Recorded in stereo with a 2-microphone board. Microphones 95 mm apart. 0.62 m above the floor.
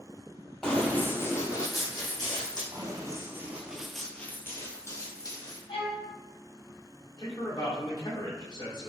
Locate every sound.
0.6 s running footsteps: 5° left (ahead or behind), 0.7 m; by 2.6 s 45° left (ahead or behind), 1.5 m
2.7 s running footsteps: 40° right (ahead or behind), 0.8 m; by 5.6 s 40° left (ahead or behind), 1.1 m
5.7 s a violin: 85° left, 1.7 m
7.2 s a man speaking: 45° left (ahead or behind), 1.2 m